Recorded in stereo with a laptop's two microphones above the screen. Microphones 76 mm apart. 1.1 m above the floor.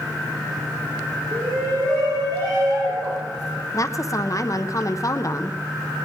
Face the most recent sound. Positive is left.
turn(degrees=45)  # may be behind; listen again after turning